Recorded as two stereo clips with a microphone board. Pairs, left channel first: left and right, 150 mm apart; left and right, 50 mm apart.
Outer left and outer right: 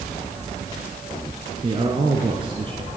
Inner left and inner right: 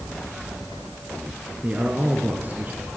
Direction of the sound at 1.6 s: 35° right (ahead or behind).